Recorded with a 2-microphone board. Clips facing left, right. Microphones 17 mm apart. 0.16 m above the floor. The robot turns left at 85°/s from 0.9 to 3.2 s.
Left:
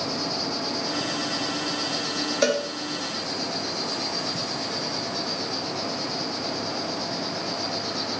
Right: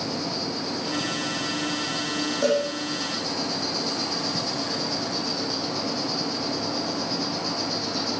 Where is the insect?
155° left, 6 m; by 8.2 s 40° right, 6 m.